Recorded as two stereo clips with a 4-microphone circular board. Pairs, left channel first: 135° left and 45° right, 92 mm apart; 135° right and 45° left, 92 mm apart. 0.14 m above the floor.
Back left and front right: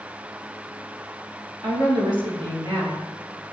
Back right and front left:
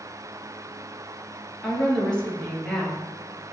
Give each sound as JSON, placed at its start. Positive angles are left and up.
{"t": 1.6, "sound": "a woman speaking", "azimuth_deg": -60, "distance_m": 3.0}